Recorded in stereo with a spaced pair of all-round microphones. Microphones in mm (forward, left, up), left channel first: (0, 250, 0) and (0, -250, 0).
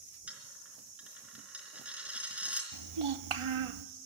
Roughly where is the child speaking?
Right.